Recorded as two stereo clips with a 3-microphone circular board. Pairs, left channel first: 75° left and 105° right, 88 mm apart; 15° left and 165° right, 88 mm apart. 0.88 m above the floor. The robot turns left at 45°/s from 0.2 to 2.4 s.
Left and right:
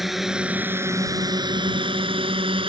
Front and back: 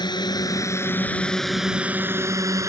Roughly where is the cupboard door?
I don't hear a cupboard door.